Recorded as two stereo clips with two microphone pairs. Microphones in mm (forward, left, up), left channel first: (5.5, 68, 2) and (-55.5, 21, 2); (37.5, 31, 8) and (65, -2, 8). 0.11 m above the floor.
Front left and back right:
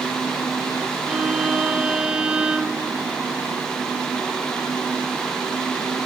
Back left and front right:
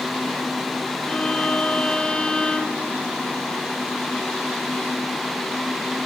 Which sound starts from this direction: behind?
A violin, at 1.1 s.